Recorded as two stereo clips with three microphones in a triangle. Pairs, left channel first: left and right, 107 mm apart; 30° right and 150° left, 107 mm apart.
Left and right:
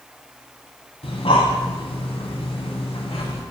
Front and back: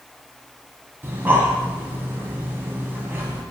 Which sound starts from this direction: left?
Breathing, at 1.0 s.